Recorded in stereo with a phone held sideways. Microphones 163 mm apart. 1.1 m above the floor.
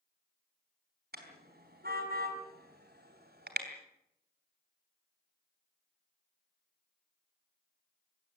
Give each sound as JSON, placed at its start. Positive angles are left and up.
{"t": 1.1, "sound": "a car horn", "side_deg": -75, "distance_m": 4.0}